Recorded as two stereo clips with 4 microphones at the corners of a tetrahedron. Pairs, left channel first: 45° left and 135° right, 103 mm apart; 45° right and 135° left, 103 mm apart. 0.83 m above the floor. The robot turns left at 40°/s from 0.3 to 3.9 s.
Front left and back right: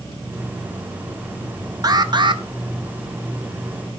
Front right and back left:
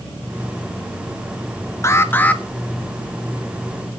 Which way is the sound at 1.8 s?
95° right.